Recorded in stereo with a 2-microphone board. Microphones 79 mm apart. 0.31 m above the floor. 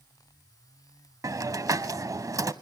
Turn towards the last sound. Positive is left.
turn(degrees=-50)  # may be behind; listen again after turning